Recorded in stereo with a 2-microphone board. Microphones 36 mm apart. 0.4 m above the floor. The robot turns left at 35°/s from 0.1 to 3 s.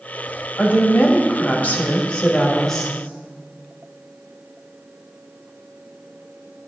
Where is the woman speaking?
90° left, 1.6 m; by 2.9 s 10° left, 1.6 m.